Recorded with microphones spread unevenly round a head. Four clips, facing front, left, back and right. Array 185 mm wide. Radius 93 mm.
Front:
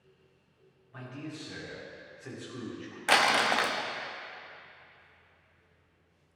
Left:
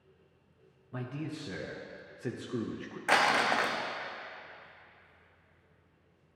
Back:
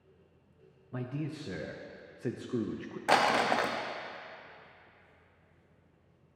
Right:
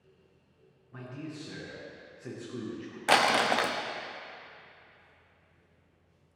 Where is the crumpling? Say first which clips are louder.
Right 2 dB, even; 120° right, 0.5 m.